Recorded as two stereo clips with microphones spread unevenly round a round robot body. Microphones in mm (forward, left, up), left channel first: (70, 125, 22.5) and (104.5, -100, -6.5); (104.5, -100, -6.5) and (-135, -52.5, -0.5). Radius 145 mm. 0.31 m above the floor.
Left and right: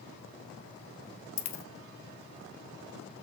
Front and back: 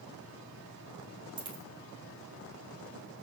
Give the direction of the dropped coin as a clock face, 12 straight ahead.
9 o'clock.